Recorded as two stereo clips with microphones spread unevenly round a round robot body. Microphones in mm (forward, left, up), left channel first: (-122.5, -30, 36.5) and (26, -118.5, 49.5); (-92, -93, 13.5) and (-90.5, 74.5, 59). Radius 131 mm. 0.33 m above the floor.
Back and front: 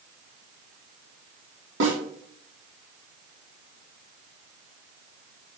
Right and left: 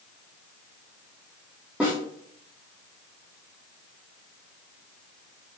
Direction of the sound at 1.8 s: 5° left.